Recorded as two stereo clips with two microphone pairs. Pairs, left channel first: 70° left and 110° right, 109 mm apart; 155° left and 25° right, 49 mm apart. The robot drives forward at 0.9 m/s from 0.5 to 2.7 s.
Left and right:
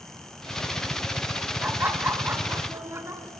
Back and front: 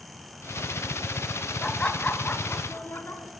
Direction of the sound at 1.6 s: 155° right.